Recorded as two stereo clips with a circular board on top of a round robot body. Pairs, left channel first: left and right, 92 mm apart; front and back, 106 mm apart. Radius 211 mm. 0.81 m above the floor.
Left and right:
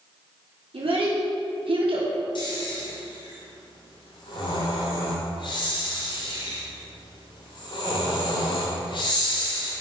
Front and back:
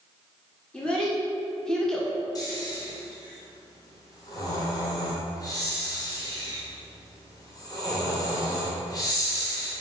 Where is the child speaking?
80° right, 1.9 m; by 2.1 s 85° right, 1.2 m.